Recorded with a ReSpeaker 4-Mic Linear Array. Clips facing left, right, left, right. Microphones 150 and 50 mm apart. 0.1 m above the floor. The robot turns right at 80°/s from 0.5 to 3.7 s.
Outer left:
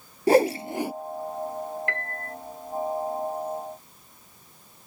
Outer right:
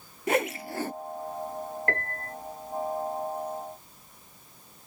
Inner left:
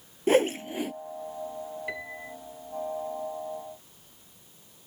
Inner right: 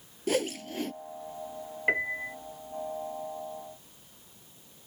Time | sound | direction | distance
0.3 | a whoosh | 35° left (ahead or behind) | ?
1.9 | a piano | 75° right | ?